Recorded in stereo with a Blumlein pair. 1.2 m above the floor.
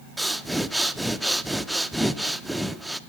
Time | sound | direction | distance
0.2 | breathing | straight ahead | 0.5 m